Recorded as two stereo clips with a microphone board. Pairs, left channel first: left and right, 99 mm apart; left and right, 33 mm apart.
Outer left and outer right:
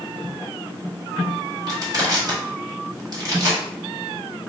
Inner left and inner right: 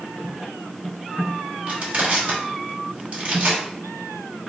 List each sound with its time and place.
1.7 s crushing: 40° right (ahead or behind), 1.2 m